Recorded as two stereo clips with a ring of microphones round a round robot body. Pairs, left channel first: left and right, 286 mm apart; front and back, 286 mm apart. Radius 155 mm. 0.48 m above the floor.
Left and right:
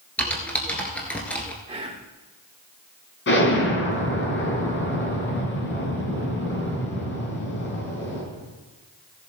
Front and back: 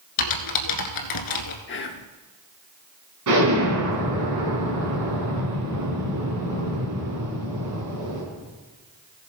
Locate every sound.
0.2 s typing on a keyboard: 5° left, 1.3 m
1.7 s whispering: 25° right, 1.0 m
3.3 s an explosion: 140° left, 4 m